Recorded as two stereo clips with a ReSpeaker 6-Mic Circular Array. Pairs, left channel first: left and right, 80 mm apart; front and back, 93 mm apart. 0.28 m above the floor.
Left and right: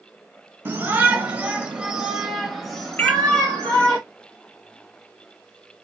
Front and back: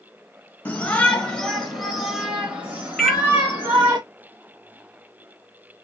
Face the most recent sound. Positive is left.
turn(degrees=80)